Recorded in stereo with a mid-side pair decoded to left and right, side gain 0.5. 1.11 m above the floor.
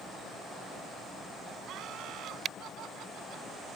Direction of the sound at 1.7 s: 70° right.